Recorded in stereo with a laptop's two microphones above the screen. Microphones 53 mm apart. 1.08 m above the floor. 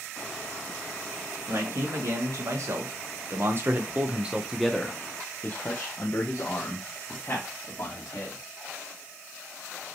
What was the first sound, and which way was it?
A man speaking, 70° right (ahead or behind).